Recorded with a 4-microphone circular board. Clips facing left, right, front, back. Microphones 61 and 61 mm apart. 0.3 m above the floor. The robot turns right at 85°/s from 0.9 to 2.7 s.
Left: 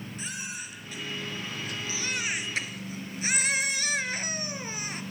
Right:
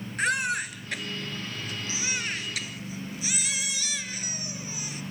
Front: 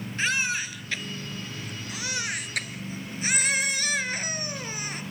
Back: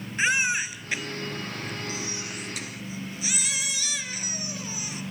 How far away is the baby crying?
About 1.9 m.